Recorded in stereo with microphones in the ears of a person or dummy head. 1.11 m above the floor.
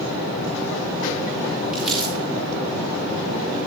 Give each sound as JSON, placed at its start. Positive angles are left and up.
{"t": 1.7, "sound": "crumpling", "side_deg": -15, "distance_m": 3.5}